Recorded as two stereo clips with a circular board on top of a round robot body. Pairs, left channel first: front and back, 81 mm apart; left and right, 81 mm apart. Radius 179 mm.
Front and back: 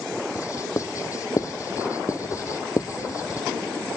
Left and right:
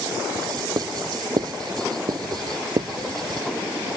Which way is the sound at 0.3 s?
50° right.